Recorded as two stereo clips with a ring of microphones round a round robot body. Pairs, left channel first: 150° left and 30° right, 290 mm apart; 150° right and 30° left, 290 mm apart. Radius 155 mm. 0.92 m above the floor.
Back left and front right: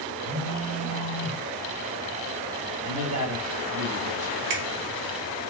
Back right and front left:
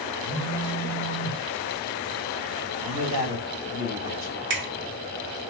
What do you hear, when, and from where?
0.2 s a phone buzzing: 40° right, 2.5 m
2.8 s a man speaking: 15° right, 3 m
4.5 s a finger snap: 20° right, 1.5 m